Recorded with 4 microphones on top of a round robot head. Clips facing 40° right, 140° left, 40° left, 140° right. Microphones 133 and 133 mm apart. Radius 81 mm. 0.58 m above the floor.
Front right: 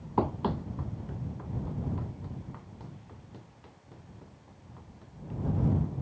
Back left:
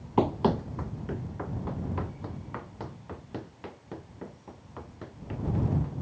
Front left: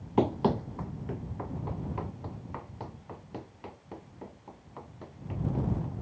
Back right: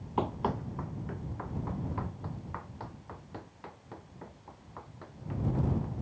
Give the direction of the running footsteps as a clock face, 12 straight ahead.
9 o'clock.